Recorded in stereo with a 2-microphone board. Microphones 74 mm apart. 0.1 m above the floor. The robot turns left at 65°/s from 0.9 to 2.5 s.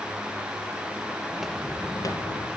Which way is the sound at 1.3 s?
15° right (ahead or behind).